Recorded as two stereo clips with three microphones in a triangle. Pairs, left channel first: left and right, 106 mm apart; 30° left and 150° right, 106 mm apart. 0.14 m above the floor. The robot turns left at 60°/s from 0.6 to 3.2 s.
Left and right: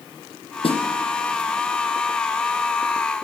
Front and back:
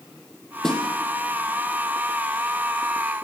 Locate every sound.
0.6 s a snare drum: 115° left, 4.5 m; by 0.8 s 105° left, 4.5 m